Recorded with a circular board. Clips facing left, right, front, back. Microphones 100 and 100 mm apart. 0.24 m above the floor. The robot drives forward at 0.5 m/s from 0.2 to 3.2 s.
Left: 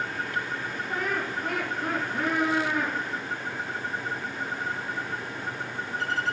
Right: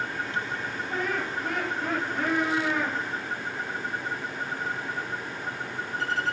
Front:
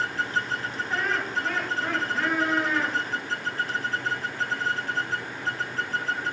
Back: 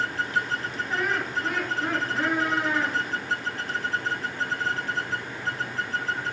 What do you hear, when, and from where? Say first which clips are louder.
0.9 s laughter: even, even; 100° left, 2.5 m; by 3.0 s 120° left, 3 m